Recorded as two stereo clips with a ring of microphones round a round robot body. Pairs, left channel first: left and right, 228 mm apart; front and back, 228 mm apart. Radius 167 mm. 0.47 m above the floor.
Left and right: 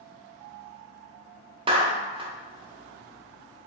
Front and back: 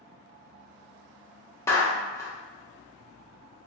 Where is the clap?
60° right, 0.5 m.